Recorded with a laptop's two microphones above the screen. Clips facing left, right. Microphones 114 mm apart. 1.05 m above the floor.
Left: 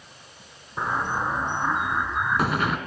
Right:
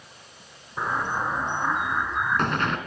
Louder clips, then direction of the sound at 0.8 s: Left 1 dB; 5° left (ahead or behind).